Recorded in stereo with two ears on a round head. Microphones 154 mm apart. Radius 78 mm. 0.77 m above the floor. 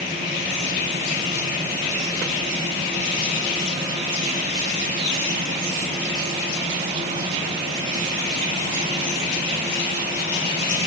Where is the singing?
No singing in this recording.